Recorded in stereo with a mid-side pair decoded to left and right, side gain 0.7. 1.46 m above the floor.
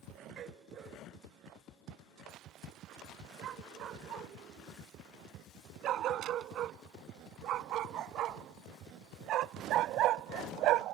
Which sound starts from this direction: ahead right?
A dog barking, at 0.4 s.